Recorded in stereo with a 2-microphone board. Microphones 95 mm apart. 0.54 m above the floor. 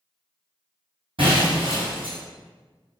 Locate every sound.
1.2 s breaking glass: 70° right (ahead or behind), 1.4 m